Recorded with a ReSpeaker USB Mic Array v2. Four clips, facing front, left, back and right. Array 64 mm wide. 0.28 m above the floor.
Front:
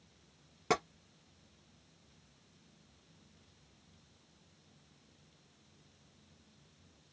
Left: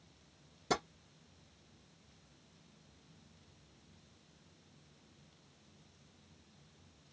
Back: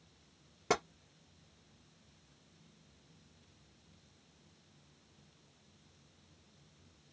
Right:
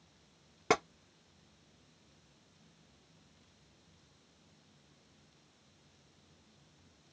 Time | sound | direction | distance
0.7 | tapping | 85° right | 3 m